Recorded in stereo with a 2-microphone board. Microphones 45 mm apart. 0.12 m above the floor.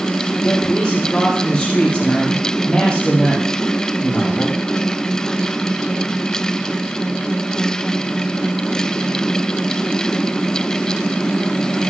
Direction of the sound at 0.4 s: 20° left (ahead or behind).